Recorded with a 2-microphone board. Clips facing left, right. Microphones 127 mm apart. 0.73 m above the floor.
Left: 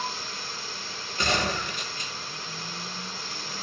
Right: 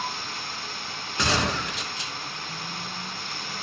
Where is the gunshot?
85° right, 3 m.